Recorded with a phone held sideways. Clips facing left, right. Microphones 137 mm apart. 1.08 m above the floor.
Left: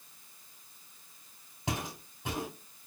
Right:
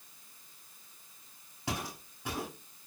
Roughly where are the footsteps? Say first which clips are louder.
Left 1 dB; left.